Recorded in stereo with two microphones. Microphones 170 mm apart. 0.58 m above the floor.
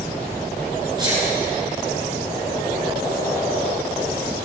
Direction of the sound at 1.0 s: 25° right (ahead or behind).